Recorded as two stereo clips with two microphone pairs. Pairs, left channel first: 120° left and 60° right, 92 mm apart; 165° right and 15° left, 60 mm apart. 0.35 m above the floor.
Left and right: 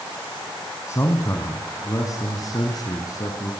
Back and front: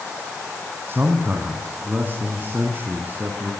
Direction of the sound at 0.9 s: 65° left.